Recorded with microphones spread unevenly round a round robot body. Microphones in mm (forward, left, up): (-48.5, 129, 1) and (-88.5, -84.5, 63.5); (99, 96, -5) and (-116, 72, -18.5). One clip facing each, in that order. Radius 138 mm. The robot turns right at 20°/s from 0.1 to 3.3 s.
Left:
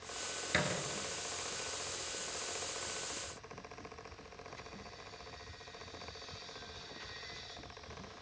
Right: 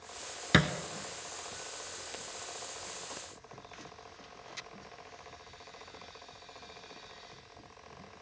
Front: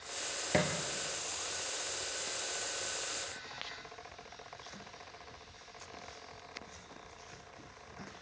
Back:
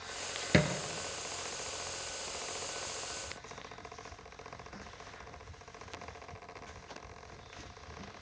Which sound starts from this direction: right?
A thud, at 0.5 s.